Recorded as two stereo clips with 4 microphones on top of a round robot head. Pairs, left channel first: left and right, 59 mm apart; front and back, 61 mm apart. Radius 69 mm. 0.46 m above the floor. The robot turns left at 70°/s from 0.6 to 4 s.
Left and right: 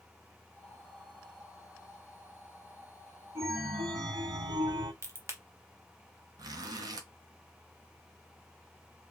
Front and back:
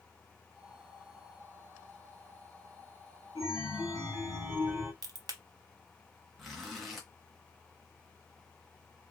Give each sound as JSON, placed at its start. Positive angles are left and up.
{"t": 3.4, "sound": "a chime", "azimuth_deg": -50, "distance_m": 1.7}
{"t": 5.0, "sound": "a crack", "azimuth_deg": -145, "distance_m": 0.7}
{"t": 6.4, "sound": "a zipper", "azimuth_deg": -90, "distance_m": 0.8}